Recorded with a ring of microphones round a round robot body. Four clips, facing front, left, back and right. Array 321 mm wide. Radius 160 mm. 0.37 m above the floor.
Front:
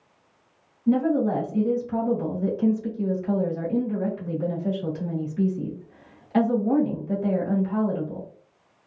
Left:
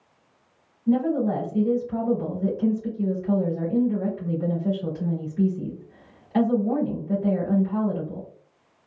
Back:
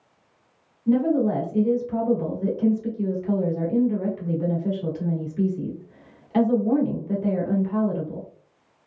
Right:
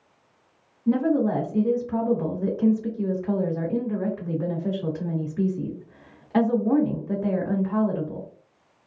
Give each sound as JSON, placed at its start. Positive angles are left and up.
{"t": 0.9, "sound": "a woman speaking", "azimuth_deg": -110, "distance_m": 1.4}